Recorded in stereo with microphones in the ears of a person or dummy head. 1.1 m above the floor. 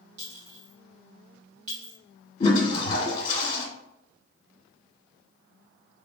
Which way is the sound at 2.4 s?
30° left (ahead or behind).